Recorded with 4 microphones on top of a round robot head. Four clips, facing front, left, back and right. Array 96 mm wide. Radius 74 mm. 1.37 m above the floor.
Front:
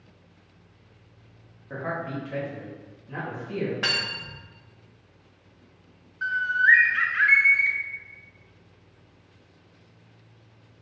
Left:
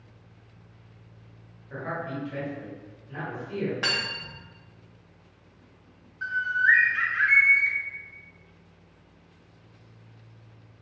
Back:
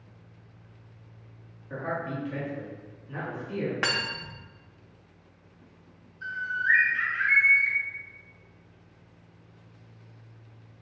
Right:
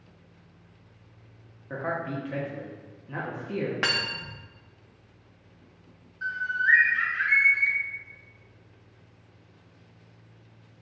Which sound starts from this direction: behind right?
Cutlery clinking, at 3.8 s.